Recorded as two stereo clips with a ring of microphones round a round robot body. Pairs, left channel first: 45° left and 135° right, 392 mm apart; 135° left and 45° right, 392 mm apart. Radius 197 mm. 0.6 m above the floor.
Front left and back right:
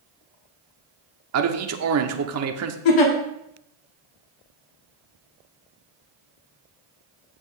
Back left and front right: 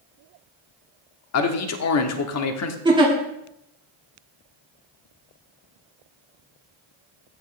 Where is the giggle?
30° left, 1.6 m.